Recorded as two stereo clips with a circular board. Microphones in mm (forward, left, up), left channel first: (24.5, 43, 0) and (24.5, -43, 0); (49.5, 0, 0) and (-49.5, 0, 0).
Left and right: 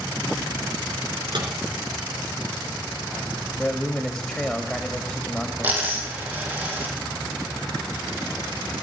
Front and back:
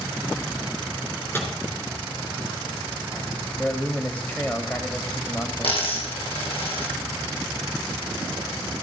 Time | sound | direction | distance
1.3 | a microwave | 70° right | 3 m
3.6 | a man speaking | 25° left | 1.1 m
5.6 | a dropped coin | 20° right | 5 m